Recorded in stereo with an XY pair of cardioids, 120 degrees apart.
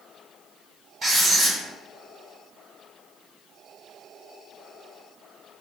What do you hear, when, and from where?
1.0 s writing: 35° right, 1.4 m